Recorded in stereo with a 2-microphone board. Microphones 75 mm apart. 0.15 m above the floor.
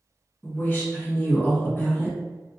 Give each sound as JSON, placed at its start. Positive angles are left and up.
{"t": 0.4, "sound": "a woman speaking", "side_deg": 30, "distance_m": 1.2}